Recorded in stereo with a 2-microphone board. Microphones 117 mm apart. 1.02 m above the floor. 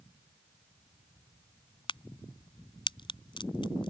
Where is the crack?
45° left (ahead or behind).